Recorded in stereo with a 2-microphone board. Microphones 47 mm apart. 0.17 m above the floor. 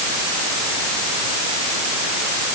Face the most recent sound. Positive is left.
No sound to turn to.